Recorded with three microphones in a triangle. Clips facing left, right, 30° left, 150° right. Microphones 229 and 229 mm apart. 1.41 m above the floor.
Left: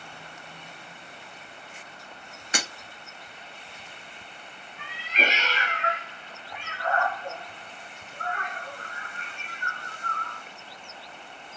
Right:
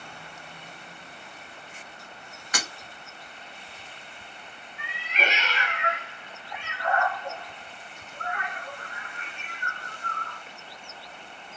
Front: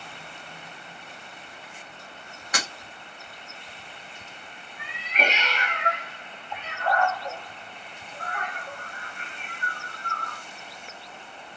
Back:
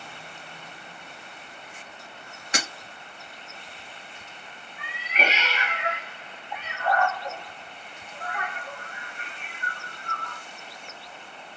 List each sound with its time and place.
2.5 s breaking glass: 150° left, 1.3 m
4.8 s a cat meowing: 125° left, 1.1 m